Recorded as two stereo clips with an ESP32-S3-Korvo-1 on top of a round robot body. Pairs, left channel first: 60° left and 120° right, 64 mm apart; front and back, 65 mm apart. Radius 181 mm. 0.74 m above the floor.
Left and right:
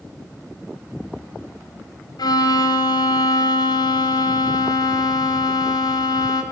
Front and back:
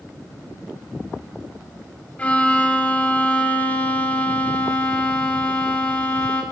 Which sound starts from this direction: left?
A violin, at 2.2 s.